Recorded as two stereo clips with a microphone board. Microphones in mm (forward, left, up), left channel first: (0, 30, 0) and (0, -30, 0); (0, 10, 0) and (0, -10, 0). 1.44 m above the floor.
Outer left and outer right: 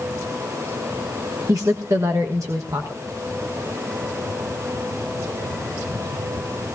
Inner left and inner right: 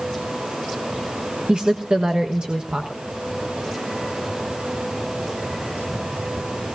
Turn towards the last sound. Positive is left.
turn(degrees=-60)  # may be behind; listen again after turning